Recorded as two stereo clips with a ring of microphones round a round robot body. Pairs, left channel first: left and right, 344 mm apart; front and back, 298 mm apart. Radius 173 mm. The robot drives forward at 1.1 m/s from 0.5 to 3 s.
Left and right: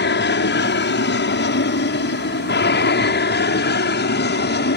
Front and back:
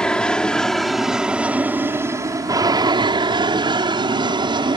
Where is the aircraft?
85° left; by 4.8 s 120° left.